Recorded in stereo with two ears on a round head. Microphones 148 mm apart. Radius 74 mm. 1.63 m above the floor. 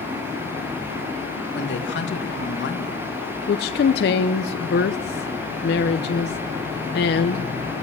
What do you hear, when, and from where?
1.5 s a woman speaking: 75° left (ahead or behind), 2.5 m
3.5 s a woman speaking: 65° left (ahead or behind), 0.9 m